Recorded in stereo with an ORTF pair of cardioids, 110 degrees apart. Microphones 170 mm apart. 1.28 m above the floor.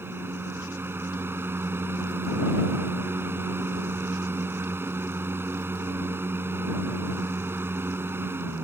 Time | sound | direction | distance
0.0 | a fan | 15° right | ?